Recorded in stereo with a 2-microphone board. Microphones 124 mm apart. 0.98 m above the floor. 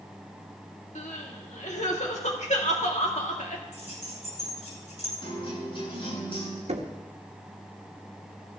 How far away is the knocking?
About 1.4 m.